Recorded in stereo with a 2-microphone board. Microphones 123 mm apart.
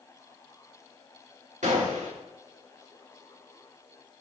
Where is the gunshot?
85° right, 2 m.